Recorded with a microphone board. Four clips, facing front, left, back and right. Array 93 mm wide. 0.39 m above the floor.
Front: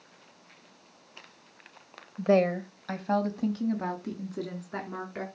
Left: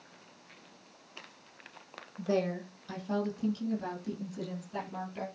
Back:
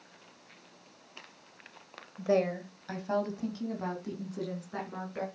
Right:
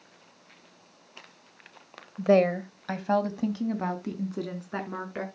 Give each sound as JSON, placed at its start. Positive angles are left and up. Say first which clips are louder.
{"t": 2.2, "sound": "a woman speaking", "louder": "right 10 dB, front 5 dB", "azimuth_deg": -65, "distance_m": 1.2}